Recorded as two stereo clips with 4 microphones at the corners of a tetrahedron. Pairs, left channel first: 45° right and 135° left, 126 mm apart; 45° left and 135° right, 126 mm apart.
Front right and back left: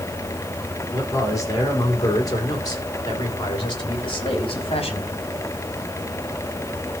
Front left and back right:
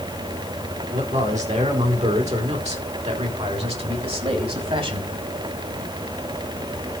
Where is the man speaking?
110° right, 5 m; by 5.1 s 90° right, 3 m.